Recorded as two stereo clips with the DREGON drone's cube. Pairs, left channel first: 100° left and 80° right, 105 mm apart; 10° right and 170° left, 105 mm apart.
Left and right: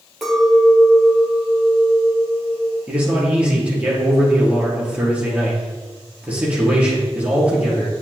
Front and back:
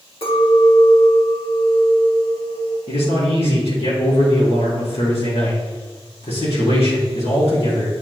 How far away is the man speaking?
About 3 m.